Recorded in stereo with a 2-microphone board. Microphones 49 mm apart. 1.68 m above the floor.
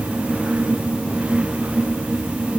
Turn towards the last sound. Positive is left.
No sound to turn to.